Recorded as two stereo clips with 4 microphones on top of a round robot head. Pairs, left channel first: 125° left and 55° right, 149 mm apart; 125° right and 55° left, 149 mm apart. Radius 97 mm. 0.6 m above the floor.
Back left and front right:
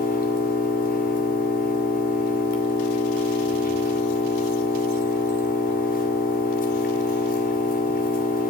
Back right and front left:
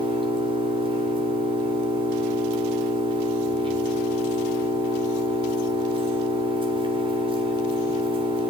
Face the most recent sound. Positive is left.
turn(degrees=110)